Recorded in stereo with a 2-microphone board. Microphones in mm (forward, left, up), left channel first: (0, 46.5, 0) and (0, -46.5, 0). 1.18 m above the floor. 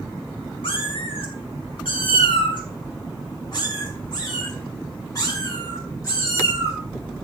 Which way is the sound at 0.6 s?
75° left (ahead or behind).